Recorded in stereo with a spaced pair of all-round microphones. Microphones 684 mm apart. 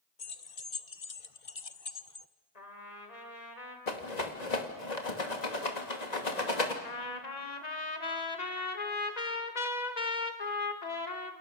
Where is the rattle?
75° left (ahead or behind), 2.5 m.